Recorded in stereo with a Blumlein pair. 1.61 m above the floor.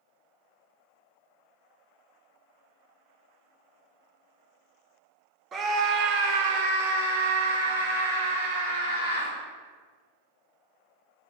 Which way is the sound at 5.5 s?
20° right.